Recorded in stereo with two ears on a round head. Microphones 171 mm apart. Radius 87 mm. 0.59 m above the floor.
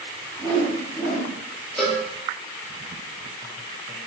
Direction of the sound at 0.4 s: 5° left (ahead or behind).